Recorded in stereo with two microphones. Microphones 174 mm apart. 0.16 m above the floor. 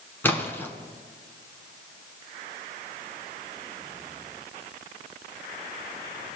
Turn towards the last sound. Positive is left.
turn(degrees=10)  # may be behind; listen again after turning